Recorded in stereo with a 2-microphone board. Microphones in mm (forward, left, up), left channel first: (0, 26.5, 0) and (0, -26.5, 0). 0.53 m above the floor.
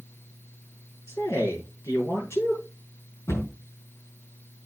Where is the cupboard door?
80° left, 4.5 m.